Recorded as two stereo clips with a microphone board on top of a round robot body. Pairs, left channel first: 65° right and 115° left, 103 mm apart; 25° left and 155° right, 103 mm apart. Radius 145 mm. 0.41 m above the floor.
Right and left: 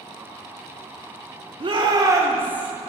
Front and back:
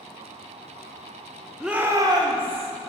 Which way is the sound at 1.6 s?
115° left.